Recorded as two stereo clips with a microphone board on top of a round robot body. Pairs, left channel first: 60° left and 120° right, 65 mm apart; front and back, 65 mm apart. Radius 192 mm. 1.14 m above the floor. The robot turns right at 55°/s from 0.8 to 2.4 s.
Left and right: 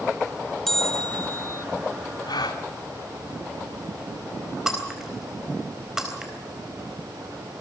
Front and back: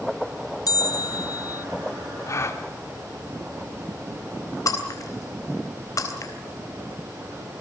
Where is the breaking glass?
35° right, 3.5 m.